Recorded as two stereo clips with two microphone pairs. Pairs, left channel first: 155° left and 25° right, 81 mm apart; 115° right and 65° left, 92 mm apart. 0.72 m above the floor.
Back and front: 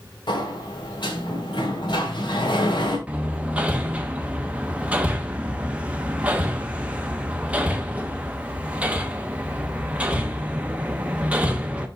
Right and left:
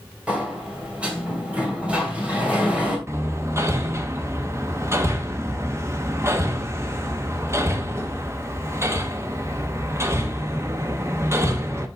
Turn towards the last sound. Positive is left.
turn(degrees=35)